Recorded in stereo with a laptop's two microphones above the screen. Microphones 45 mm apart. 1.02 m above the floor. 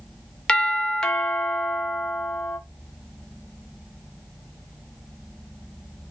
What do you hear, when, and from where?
0.5 s a doorbell: 20° left (ahead or behind), 0.6 m